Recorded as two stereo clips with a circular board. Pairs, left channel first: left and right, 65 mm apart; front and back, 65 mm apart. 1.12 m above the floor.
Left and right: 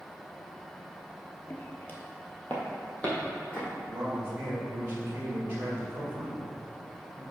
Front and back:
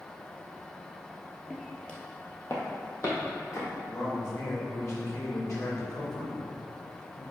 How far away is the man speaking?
About 1.8 m.